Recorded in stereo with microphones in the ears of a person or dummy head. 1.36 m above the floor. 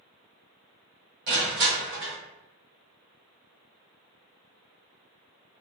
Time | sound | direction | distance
1.3 | crushing | 55° right (ahead or behind) | 1.1 m